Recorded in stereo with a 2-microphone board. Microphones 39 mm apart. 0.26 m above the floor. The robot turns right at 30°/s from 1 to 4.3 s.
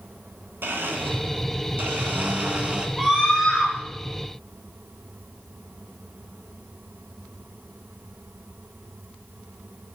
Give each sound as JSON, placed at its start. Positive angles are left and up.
{"t": 0.6, "sound": "a blender", "azimuth_deg": -90, "distance_m": 0.9}
{"t": 3.0, "sound": "a scream", "side_deg": 0, "distance_m": 3.0}